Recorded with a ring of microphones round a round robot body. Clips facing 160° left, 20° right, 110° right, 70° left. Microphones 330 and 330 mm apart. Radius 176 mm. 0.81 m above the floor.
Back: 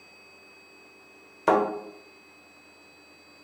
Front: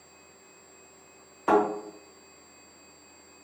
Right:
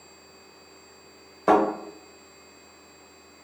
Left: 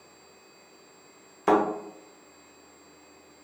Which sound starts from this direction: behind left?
A thud, at 1.5 s.